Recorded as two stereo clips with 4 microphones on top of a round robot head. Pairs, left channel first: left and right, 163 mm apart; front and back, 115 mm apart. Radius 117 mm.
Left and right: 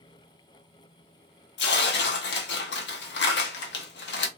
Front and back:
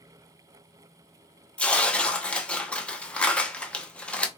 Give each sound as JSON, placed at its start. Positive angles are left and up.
{"t": 1.6, "sound": "tearing paper", "azimuth_deg": 80, "distance_m": 0.8}